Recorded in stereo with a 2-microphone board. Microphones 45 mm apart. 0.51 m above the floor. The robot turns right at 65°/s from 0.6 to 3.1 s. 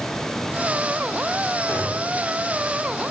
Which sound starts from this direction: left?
A gunshot, at 1.7 s.